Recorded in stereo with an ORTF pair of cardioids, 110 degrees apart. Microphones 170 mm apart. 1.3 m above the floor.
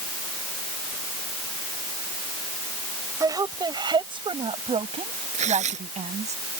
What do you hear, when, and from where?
3.2 s a woman speaking: 20° right; by 6.3 s 40° right
5.3 s tearing paper: 45° right